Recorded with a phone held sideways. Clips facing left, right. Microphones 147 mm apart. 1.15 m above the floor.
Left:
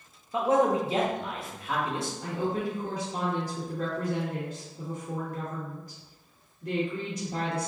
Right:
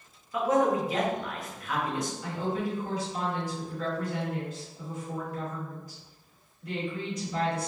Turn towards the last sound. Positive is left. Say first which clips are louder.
# left 3 dB
turn(degrees=55)  # may be behind; listen again after turning